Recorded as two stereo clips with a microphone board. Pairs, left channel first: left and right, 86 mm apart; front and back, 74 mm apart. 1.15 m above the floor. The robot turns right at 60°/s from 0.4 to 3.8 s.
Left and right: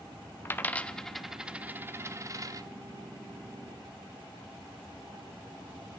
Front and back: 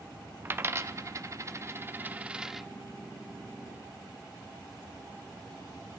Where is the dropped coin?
135° left, 0.6 m; by 2.7 s 90° right, 0.6 m.